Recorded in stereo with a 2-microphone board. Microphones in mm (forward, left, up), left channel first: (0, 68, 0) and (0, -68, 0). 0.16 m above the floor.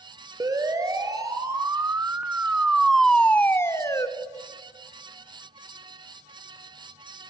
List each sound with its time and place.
0.4 s a siren: 25° right (ahead or behind), 3 m; by 4.1 s 25° left (ahead or behind), 1.5 m